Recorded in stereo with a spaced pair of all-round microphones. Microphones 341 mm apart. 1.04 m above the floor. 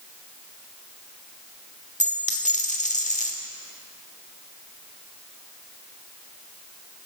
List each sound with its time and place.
2.0 s a dropped coin: 20° left (ahead or behind), 1.2 m